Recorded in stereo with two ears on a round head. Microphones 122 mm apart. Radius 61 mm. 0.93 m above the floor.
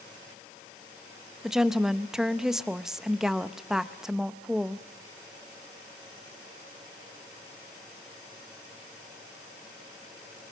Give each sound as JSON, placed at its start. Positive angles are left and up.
{"t": 1.4, "sound": "a woman speaking", "side_deg": -5, "distance_m": 0.8}